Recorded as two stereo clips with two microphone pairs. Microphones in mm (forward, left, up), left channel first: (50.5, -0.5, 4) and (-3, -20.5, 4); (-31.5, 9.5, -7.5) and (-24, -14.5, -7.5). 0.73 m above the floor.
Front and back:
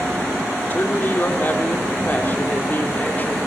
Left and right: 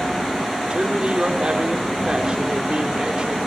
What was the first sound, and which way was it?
A woman speaking, 30° right.